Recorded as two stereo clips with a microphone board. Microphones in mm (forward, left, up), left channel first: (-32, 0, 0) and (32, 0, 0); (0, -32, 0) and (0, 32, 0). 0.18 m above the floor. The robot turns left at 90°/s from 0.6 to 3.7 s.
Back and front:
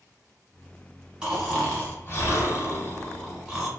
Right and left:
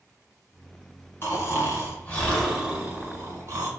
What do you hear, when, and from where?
1.2 s snoring: 65° right, 1.2 m; by 3.7 s 70° left, 1.2 m